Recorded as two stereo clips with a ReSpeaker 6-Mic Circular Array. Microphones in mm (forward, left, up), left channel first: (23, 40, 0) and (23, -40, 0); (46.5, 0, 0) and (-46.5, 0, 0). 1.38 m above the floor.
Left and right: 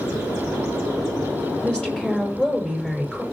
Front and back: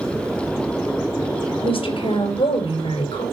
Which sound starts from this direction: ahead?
A woman speaking, at 1.6 s.